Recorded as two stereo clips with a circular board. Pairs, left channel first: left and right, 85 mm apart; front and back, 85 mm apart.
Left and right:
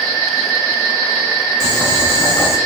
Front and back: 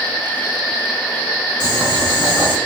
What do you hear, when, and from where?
1.6 s boiling: 35° left, 1.6 m